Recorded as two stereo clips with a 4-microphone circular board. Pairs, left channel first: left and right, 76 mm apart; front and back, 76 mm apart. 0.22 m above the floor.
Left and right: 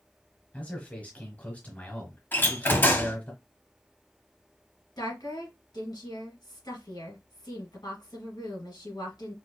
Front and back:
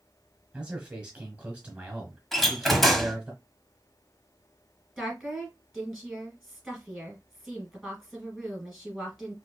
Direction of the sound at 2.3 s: 85° left.